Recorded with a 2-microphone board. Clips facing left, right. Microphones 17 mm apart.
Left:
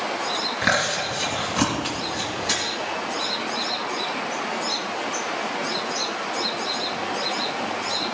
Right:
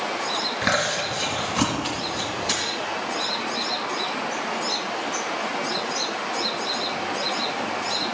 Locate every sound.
0.6 s chewing: centre (ahead or behind), 2.5 m